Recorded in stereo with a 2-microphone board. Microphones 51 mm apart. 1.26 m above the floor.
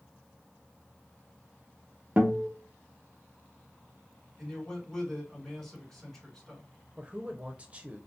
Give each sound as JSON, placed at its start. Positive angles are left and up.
{"t": 2.2, "sound": "a guitar", "side_deg": -25, "distance_m": 0.8}
{"t": 4.4, "sound": "a man speaking", "side_deg": 5, "distance_m": 2.0}
{"t": 7.0, "sound": "a man speaking", "side_deg": -25, "distance_m": 0.6}